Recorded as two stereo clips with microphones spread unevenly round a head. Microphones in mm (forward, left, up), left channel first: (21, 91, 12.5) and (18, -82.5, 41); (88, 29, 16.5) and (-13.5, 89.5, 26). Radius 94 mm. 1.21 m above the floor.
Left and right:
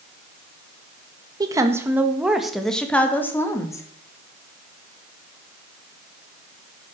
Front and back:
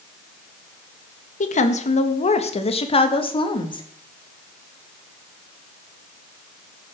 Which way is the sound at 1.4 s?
20° right.